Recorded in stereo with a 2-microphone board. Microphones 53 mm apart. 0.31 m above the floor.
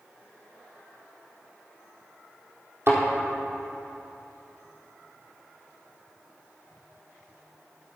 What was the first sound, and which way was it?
A thud, 55° right (ahead or behind).